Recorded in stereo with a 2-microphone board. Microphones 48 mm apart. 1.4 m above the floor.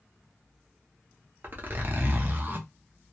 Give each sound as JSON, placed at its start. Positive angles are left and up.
{"t": 1.4, "sound": "a zipper", "side_deg": -45, "distance_m": 0.5}